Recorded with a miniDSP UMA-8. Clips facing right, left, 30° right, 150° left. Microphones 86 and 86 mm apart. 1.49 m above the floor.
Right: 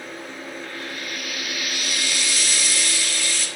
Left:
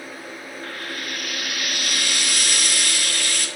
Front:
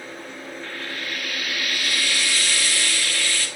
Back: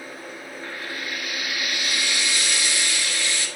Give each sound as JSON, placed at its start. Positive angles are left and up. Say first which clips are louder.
{"t": 0.6, "sound": "frying", "louder": "left 1 dB, back 1 dB", "azimuth_deg": 80, "distance_m": 1.2}